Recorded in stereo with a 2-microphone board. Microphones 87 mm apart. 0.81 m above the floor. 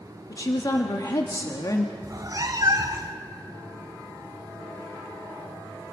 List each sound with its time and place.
0.3 s a woman speaking: 45° left (ahead or behind), 1.4 m
2.0 s a cat meowing: 45° right (ahead or behind), 0.9 m